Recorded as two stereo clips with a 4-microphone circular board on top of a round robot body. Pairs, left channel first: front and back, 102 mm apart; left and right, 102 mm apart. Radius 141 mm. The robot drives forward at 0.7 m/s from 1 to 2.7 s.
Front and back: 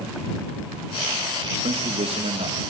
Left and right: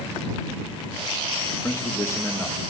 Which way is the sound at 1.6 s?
155° left.